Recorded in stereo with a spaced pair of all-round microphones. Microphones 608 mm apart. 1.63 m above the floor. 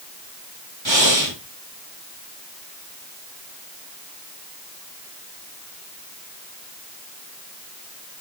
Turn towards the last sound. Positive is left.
turn(degrees=-45)  # may be behind; listen again after turning